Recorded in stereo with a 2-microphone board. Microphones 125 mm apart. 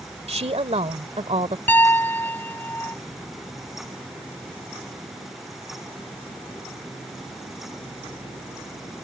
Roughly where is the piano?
Centre.